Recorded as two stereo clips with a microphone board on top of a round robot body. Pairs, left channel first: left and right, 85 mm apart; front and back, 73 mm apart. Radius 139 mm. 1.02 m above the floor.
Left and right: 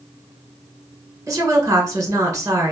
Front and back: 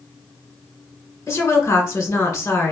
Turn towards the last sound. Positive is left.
turn(degrees=-40)